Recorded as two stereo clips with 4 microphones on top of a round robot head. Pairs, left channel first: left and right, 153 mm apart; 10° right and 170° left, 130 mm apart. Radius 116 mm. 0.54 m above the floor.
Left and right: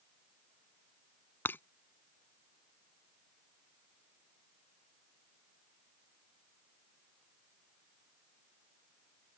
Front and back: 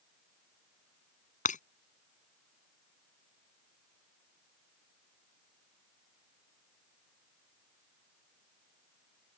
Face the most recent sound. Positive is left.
turn(degrees=10)